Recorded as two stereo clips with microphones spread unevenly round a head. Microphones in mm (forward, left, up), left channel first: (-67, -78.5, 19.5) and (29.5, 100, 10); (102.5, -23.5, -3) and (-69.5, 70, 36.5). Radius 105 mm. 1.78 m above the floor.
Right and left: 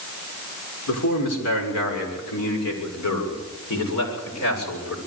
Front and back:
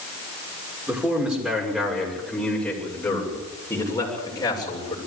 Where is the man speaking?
130° right, 6.5 m; by 5.0 s 100° right, 8 m.